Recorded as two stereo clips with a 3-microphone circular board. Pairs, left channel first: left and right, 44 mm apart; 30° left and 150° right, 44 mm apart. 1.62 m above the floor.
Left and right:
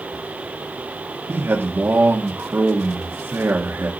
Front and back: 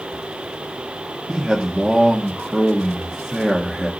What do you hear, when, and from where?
1.3 s a man speaking: 60° right, 1.8 m